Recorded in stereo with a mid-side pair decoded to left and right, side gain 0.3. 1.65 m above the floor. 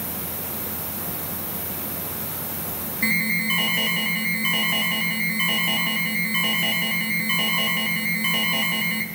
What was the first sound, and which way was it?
An alarm, 10° right.